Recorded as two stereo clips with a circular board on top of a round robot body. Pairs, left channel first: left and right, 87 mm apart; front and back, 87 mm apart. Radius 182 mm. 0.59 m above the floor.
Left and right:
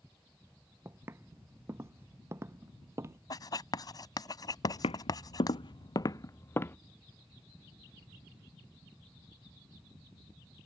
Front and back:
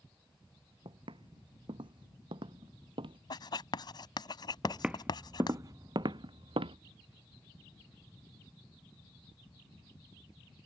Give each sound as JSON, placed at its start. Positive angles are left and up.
{"t": 0.8, "sound": "footsteps", "azimuth_deg": -150}
{"t": 3.3, "sound": "writing", "azimuth_deg": 45}
{"t": 4.6, "sound": "footsteps", "azimuth_deg": 95}